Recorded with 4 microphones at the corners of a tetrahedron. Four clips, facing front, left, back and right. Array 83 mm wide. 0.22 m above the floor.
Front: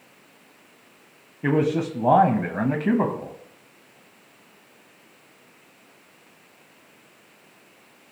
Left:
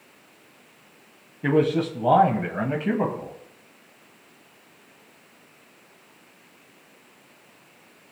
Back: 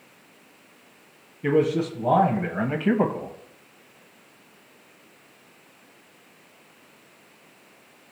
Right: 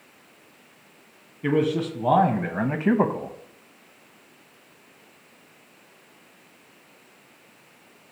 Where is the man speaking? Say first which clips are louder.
Left 2 dB, even; 25° left, 1.3 m; by 3.3 s 90° right, 1.3 m.